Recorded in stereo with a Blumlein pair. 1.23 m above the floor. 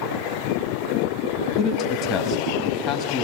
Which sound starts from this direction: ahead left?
A man speaking, at 1.6 s.